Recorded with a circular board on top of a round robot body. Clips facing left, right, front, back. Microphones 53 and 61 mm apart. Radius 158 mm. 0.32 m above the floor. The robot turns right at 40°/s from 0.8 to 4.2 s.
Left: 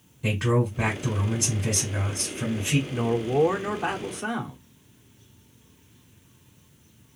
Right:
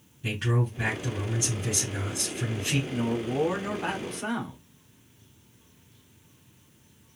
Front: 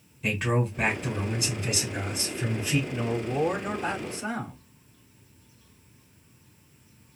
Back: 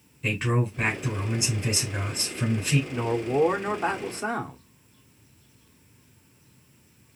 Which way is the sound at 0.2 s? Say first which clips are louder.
Left 5 dB, even; 90° left.